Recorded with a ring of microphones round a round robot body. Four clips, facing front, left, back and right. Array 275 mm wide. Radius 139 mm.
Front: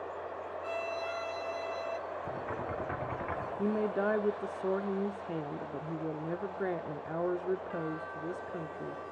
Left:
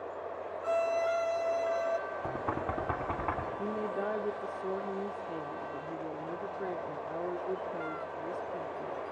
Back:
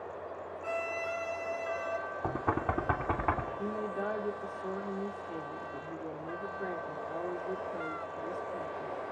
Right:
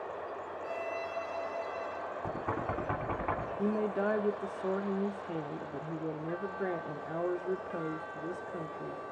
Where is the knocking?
175° left, 3 m.